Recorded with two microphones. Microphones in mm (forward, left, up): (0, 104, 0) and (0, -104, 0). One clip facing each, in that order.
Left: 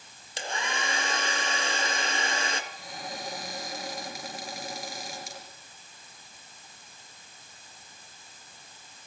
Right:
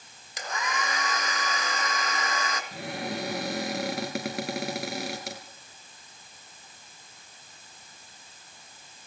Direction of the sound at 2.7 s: 70° right (ahead or behind).